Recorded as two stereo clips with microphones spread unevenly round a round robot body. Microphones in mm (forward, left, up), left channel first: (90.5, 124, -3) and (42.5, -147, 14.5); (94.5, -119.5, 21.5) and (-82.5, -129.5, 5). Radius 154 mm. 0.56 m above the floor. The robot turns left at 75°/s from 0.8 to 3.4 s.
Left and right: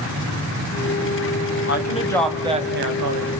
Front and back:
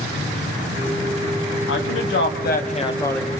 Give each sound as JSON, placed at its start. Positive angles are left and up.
{"t": 1.7, "sound": "a woman speaking", "azimuth_deg": 35, "distance_m": 3.5}